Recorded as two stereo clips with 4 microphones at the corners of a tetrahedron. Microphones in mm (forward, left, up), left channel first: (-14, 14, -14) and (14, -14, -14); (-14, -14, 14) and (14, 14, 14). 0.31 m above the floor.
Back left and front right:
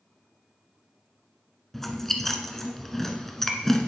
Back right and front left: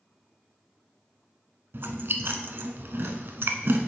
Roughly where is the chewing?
Ahead left.